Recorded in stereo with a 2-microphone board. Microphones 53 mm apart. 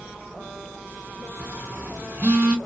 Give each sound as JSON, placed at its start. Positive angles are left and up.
{"t": 1.4, "sound": "a phone buzzing", "side_deg": -20, "distance_m": 1.8}